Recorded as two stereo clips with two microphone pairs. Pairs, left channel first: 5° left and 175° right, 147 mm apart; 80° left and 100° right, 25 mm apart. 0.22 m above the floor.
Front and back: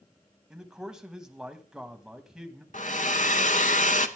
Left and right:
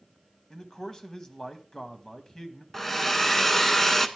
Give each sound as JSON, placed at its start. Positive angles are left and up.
{"t": 0.5, "sound": "a man speaking", "azimuth_deg": 110, "distance_m": 1.3}
{"t": 2.7, "sound": "a hair dryer", "azimuth_deg": 10, "distance_m": 1.0}